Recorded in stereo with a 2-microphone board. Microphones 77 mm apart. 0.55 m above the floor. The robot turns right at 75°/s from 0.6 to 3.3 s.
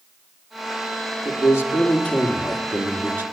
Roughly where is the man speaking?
Left.